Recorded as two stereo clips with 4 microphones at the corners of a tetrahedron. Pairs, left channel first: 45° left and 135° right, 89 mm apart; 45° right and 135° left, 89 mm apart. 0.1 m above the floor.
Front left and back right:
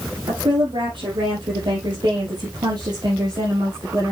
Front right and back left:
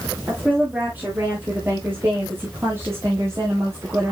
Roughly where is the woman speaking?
Behind right.